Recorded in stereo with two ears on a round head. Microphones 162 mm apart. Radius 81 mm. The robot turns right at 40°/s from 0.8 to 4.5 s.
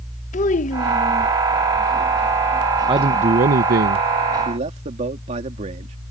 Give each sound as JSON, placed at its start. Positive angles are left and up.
{"t": 0.3, "sound": "a child speaking", "side_deg": 45}
{"t": 2.9, "sound": "a man speaking", "azimuth_deg": -150}
{"t": 4.5, "sound": "a man speaking", "side_deg": -40}